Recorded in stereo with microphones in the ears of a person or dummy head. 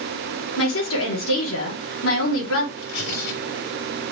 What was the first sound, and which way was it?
A woman speaking, 85° left.